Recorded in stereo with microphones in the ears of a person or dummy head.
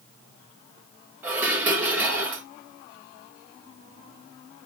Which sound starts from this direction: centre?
Dishes clattering, at 1.2 s.